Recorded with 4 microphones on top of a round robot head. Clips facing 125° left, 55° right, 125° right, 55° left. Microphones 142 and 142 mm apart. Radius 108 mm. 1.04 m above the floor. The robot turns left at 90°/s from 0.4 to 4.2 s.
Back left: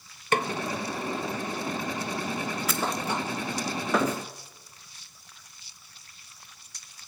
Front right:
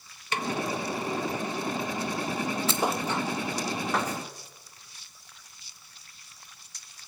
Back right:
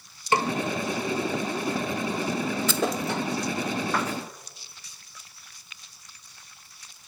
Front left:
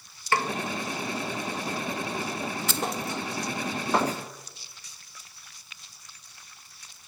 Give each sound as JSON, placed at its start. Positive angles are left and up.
{"t": 0.3, "sound": "a snare drum", "azimuth_deg": 165, "distance_m": 1.6}
{"t": 2.7, "sound": "a thud", "azimuth_deg": -120, "distance_m": 1.1}